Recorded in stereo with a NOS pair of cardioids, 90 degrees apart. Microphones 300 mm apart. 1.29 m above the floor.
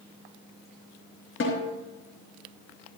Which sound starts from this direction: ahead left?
A snare drum, at 1.4 s.